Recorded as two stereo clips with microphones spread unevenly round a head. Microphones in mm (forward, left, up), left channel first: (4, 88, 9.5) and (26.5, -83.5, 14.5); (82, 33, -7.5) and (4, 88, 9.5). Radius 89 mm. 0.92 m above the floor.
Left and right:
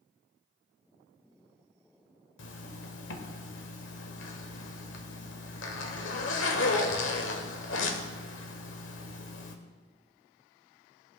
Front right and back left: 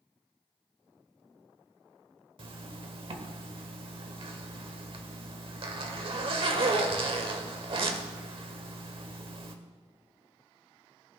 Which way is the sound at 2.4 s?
125° left.